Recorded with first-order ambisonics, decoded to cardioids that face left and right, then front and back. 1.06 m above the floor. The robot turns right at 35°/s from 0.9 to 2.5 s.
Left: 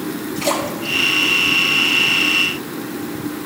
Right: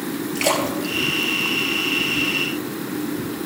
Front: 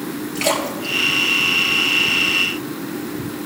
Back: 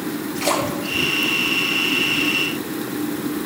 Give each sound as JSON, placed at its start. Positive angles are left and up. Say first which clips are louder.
{"t": 0.3, "sound": "a splash", "louder": "even, front 1 dB", "azimuth_deg": -55, "distance_m": 3.5}